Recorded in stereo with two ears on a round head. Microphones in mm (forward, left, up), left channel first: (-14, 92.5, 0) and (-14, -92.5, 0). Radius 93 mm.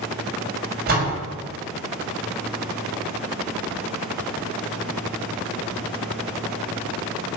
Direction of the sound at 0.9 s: 45° right (ahead or behind).